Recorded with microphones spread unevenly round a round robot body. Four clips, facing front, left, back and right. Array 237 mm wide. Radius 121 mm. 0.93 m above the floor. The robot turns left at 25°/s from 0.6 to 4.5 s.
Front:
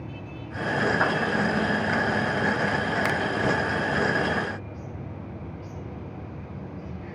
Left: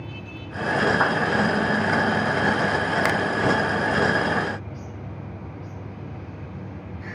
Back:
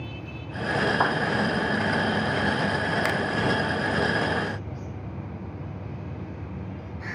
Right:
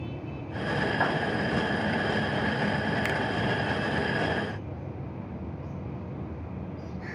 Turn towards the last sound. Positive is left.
turn(degrees=60)